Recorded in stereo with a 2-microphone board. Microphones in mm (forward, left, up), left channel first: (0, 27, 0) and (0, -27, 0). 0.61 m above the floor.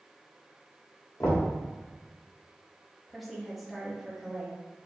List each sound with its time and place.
1.2 s knocking: 70° left (ahead or behind), 1.5 m
3.1 s a woman speaking: centre (ahead or behind), 1.0 m